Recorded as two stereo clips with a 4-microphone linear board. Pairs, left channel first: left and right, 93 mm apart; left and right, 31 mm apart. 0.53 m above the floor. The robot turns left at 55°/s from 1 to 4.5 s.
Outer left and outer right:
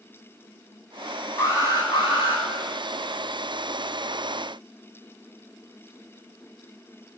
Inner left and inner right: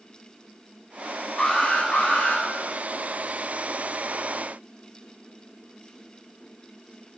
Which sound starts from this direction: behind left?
An alarm, at 1.4 s.